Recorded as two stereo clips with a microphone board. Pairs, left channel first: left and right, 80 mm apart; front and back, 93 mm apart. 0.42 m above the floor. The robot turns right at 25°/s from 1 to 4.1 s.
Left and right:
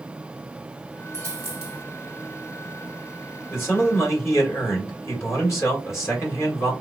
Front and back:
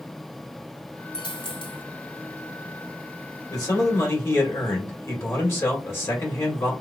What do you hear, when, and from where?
1.1 s a dropped coin: 35° right, 2.0 m; by 1.8 s 15° right, 2.0 m
3.5 s a man speaking: 35° left, 2 m; by 6.7 s 50° left, 2 m